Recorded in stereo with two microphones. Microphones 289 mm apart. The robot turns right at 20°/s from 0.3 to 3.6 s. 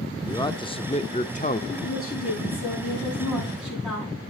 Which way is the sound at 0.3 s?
15° left (ahead or behind).